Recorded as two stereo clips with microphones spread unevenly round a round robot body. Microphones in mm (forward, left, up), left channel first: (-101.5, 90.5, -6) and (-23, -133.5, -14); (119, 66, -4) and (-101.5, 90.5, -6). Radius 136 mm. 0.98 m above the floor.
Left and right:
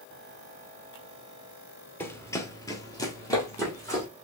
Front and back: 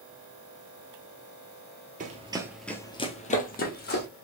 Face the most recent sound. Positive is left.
turn(degrees=30)